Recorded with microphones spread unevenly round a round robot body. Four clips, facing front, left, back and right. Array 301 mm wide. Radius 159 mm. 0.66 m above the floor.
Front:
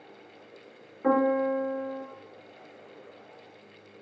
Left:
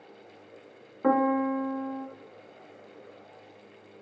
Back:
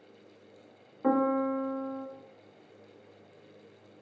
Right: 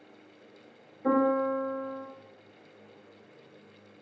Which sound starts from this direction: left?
A piano, at 1.0 s.